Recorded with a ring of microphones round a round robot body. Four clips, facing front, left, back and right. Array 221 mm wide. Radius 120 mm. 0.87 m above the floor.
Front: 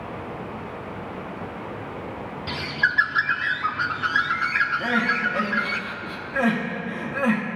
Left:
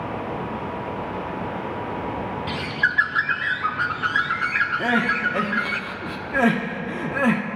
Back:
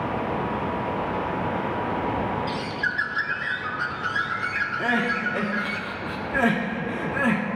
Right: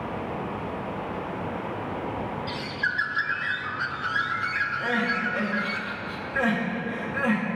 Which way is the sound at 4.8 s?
110° left.